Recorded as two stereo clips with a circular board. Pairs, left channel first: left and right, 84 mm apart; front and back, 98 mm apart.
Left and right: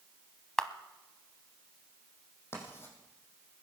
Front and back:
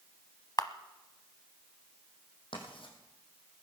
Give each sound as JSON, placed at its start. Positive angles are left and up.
{"t": 0.6, "sound": "a camera shutter", "azimuth_deg": 10, "distance_m": 0.8}
{"t": 2.5, "sound": "writing", "azimuth_deg": 30, "distance_m": 4.0}